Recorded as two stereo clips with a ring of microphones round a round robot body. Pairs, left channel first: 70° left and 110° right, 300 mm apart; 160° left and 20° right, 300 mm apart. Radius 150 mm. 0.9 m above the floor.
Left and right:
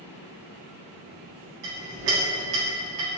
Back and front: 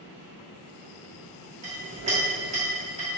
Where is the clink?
90° right, 1.3 m.